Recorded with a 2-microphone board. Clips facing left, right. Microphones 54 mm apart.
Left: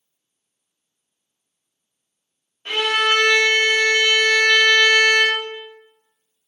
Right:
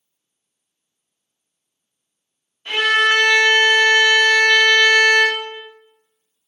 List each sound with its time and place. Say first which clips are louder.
2.6 s a violin: right 3 dB; 45° left (ahead or behind), 1.1 m